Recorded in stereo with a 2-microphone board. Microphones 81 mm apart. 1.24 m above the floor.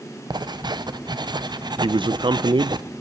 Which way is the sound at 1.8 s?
80° right.